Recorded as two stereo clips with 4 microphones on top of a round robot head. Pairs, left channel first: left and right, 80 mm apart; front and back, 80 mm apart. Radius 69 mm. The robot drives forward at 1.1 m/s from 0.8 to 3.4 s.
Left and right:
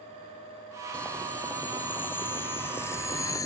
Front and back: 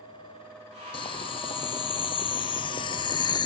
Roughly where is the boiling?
Ahead.